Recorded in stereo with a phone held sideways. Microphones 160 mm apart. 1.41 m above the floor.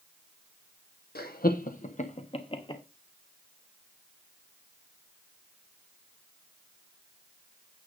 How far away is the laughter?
About 1.0 m.